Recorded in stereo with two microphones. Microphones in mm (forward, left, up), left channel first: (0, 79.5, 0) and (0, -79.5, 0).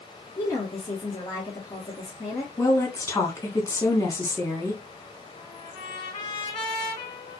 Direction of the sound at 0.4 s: 25° left (ahead or behind).